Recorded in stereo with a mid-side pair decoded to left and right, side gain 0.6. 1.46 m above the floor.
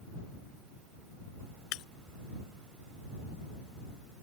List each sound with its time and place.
1.7 s breaking glass: 60° left